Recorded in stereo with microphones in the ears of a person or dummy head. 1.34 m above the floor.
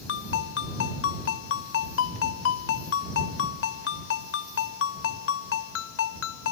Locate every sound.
0.1 s a ringtone: 85° left